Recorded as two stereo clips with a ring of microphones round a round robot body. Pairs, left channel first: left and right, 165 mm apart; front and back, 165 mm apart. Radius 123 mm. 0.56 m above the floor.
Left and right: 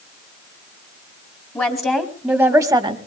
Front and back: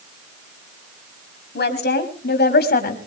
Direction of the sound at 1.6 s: 20° left.